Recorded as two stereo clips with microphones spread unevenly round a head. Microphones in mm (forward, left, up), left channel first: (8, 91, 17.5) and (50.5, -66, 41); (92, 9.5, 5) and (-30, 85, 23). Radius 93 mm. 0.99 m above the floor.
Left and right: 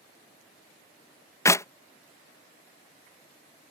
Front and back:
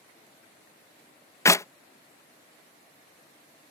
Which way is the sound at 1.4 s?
35° left.